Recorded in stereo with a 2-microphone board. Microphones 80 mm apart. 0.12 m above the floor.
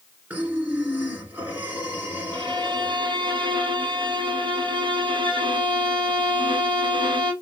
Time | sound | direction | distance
0.3 | breathing | 25° right (ahead or behind) | 1.5 m
2.3 | a violin | 70° right (ahead or behind) | 1.3 m